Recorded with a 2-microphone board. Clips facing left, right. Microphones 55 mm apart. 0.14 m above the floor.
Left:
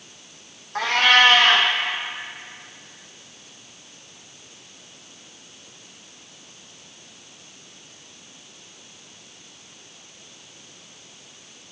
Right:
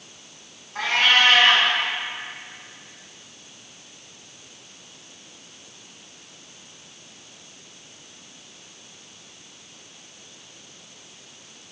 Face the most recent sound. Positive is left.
turn(degrees=65)  # may be behind; listen again after turning